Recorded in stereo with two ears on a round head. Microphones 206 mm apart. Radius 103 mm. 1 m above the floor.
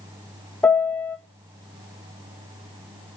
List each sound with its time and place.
0.6 s a piano: 5° left (ahead or behind), 1.1 m